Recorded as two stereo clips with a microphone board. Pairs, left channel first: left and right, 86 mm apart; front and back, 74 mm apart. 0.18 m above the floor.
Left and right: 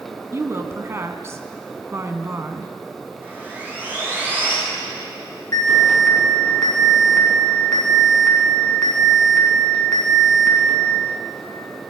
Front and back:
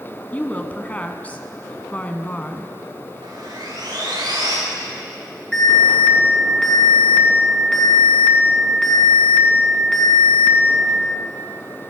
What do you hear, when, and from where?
0.3 s a woman speaking: 60° right, 1.2 m
3.2 s sawing: 155° right, 8 m
5.5 s an alarm: 70° left, 2.5 m